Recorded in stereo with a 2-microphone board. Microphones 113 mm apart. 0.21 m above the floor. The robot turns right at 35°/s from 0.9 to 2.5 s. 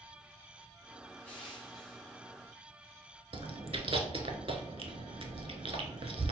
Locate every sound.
1.2 s crushing: 155° left, 2.0 m; by 2.2 s 170° right, 2.0 m
3.3 s chewing: 60° right (ahead or behind), 0.6 m